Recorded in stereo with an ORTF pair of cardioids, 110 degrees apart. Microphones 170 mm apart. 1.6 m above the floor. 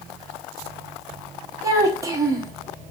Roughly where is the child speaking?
Ahead.